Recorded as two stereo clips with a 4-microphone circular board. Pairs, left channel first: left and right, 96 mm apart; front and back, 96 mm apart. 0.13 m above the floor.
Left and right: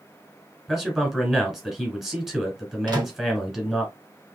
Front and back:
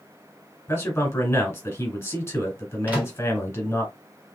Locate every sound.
0.7 s a man speaking: 10° right, 1.2 m
2.9 s a microwave: 115° right, 1.4 m